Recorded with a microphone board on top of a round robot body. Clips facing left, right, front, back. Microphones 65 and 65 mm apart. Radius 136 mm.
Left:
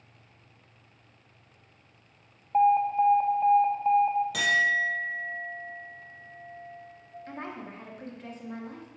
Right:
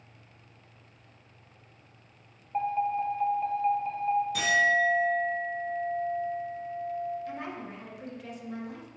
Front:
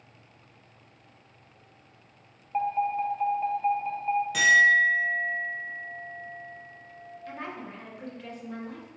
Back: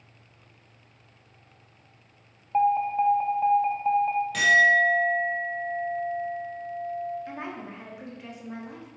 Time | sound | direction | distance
2.5 | an alarm | 120° left | 0.9 m
4.3 | a clink | 85° left | 2.0 m
7.3 | a woman speaking | 115° left | 1.4 m